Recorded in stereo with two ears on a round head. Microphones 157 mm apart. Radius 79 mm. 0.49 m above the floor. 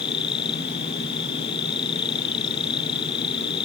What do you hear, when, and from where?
0.0 s an insect: 25° left (ahead or behind)